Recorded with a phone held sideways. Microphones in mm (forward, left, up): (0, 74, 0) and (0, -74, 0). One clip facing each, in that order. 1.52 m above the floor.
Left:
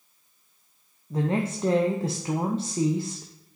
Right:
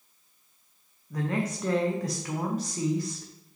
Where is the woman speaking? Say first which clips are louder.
Left 4 dB; 30° left (ahead or behind), 0.7 m.